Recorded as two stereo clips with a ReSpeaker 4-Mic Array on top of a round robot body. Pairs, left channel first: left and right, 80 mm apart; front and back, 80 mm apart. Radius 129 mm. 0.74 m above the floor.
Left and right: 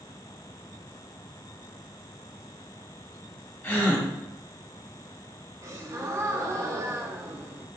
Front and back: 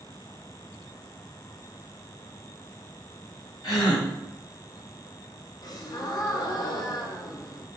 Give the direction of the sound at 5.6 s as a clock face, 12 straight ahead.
1 o'clock.